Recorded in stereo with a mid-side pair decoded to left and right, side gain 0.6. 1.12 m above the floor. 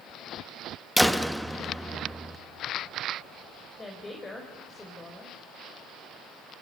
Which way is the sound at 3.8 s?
20° left.